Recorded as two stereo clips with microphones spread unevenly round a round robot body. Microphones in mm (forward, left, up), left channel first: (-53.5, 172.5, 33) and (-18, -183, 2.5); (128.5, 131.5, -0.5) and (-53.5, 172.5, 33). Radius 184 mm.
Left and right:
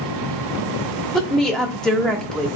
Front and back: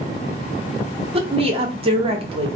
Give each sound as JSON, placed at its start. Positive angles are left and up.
{"t": 1.1, "sound": "a woman speaking", "azimuth_deg": -165, "distance_m": 0.7}